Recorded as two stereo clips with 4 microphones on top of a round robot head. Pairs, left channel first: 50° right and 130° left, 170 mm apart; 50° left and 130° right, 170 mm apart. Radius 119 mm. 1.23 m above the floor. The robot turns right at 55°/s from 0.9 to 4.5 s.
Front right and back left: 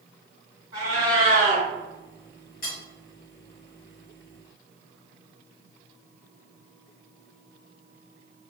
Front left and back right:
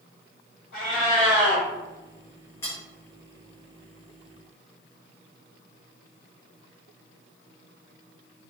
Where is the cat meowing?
130° left, 1.2 m; by 1.6 s 170° left, 1.2 m.